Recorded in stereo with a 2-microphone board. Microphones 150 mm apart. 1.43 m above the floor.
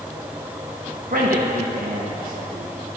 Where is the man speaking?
70° right (ahead or behind), 1.6 m.